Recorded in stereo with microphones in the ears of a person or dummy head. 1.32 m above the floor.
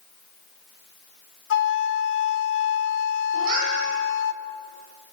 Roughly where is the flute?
Left.